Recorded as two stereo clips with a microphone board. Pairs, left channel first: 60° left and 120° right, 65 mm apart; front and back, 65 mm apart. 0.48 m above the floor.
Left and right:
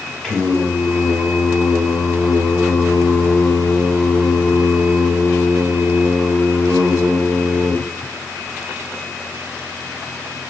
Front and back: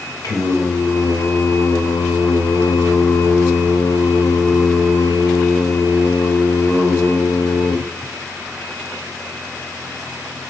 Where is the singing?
15° right, 0.5 m.